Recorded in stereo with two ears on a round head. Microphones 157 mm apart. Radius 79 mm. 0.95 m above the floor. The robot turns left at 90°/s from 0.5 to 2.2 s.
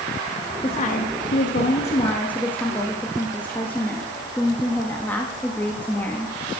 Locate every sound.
0.6 s a woman speaking: 150° left, 1.6 m; by 6.3 s 10° left, 1.6 m